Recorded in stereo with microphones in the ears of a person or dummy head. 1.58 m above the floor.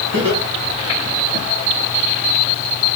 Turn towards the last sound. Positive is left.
turn(degrees=-85)